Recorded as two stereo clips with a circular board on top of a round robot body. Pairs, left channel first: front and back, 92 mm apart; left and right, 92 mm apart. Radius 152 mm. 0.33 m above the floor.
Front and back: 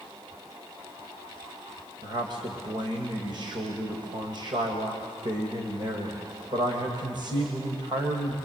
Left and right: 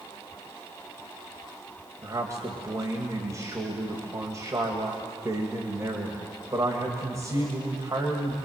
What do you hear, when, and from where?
2.0 s a man speaking: 145° right, 2.5 m